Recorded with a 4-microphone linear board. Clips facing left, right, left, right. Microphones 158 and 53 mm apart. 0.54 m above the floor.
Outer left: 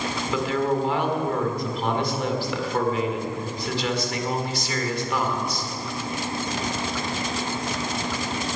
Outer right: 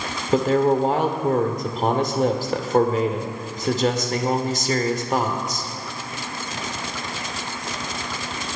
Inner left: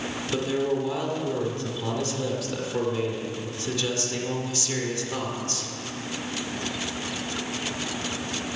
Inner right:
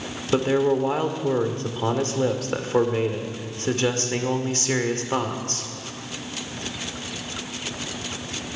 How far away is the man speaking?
About 1.6 m.